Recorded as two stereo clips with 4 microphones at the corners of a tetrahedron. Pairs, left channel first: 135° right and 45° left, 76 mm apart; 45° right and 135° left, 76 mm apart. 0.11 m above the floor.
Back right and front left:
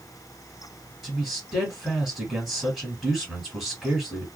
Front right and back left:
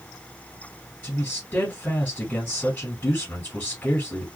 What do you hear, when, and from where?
1.0 s a man speaking: 30° right, 1.4 m